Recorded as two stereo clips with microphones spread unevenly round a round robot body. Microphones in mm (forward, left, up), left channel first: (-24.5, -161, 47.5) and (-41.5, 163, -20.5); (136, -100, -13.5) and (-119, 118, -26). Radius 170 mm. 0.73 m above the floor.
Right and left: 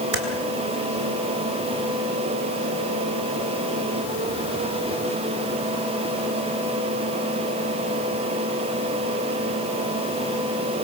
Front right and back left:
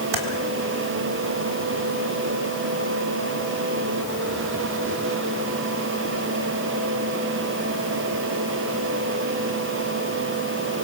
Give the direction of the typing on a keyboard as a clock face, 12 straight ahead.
7 o'clock.